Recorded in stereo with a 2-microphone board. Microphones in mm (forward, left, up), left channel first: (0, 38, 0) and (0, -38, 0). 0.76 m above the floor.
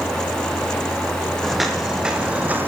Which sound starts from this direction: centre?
Footsteps, at 1.4 s.